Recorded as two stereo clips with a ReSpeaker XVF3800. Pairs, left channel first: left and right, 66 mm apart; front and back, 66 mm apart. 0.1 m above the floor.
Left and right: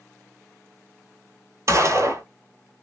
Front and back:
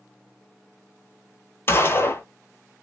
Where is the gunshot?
50° right, 0.8 m.